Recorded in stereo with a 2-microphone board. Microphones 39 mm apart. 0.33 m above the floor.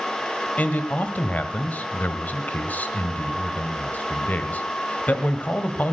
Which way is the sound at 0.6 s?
45° left (ahead or behind).